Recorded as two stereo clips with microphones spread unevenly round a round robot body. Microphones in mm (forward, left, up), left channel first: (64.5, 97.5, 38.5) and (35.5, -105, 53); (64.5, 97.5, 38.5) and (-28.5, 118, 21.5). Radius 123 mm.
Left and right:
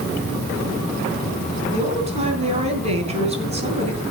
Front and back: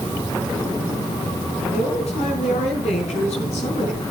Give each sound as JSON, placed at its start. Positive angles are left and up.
{"t": 1.7, "sound": "a man speaking", "azimuth_deg": -40, "distance_m": 4.0}